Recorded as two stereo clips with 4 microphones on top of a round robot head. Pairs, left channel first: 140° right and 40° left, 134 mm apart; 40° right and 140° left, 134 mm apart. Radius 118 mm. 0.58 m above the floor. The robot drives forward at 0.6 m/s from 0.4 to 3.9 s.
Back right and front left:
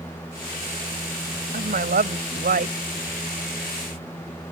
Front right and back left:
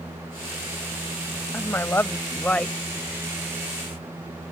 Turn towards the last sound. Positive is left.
turn(degrees=55)